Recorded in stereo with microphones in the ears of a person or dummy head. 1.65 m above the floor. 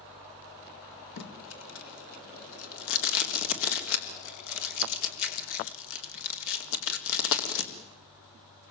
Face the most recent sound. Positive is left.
turn(degrees=80)